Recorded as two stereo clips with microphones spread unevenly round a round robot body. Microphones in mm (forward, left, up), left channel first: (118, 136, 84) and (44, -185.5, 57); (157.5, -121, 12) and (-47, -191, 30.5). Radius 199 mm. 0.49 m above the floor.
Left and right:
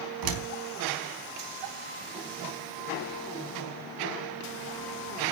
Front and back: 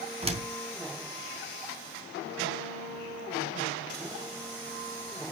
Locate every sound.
0.2 s a door slam: 100° right, 3.5 m